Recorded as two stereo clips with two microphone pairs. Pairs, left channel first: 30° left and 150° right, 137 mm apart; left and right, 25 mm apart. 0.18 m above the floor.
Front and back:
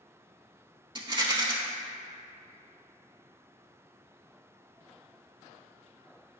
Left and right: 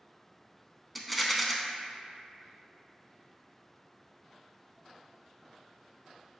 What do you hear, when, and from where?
0.9 s a rattle: 175° left, 0.6 m